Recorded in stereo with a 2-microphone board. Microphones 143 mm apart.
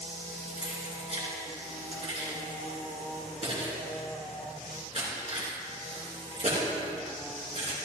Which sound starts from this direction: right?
Keys jangling, at 0.6 s.